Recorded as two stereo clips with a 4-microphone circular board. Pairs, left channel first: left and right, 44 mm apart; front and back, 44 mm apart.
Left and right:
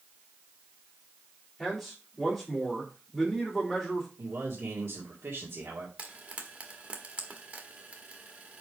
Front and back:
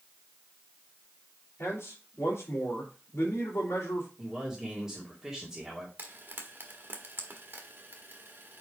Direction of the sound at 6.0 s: 140° right.